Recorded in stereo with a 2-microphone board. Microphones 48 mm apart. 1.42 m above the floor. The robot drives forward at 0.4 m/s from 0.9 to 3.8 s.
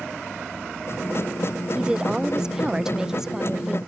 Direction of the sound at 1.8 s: 15° right (ahead or behind).